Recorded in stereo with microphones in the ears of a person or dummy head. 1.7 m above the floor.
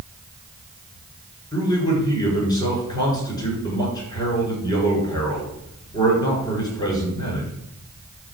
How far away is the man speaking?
About 7 m.